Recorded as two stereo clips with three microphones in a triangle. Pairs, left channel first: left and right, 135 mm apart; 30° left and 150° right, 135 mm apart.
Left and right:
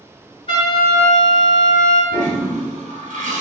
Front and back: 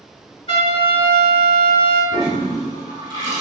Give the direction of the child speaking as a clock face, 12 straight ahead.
No child speaking in this recording.